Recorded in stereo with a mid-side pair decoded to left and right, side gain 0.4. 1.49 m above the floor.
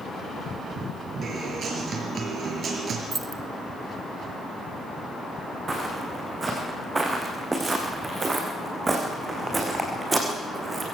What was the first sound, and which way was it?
A guitar, 55° right.